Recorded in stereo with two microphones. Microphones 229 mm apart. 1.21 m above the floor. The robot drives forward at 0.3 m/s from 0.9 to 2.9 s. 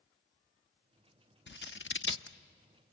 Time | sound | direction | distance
1.5 | scissors | 55° left (ahead or behind) | 0.7 m